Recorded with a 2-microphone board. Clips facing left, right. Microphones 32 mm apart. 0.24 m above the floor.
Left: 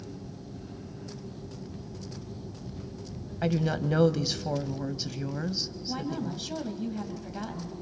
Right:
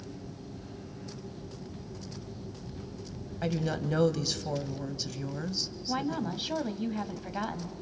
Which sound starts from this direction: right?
A woman speaking, at 5.9 s.